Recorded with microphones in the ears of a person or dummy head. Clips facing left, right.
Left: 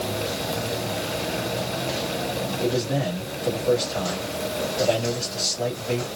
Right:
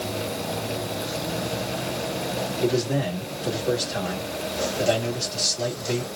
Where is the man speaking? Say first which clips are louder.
Right 1 dB; 20° right (ahead or behind), 2.0 m.